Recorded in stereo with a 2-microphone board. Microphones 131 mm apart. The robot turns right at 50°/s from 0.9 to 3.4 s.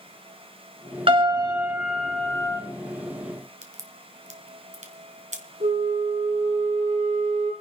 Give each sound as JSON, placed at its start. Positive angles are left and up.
{"t": 1.1, "sound": "a piano", "azimuth_deg": -50, "distance_m": 1.7}
{"t": 3.6, "sound": "a crack", "side_deg": -65, "distance_m": 1.6}
{"t": 5.6, "sound": "a flute", "side_deg": -90, "distance_m": 5.5}